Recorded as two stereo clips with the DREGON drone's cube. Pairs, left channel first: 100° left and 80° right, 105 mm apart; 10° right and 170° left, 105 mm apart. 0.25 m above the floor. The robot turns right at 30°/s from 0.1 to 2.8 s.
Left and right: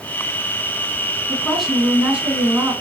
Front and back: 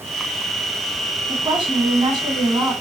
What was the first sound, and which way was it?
A woman speaking, 175° left.